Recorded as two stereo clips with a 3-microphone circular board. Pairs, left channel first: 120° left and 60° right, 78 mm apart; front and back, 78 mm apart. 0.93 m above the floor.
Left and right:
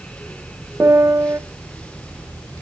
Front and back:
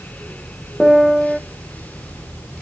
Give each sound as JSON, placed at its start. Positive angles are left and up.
{"t": 0.8, "sound": "a piano", "azimuth_deg": -95, "distance_m": 0.5}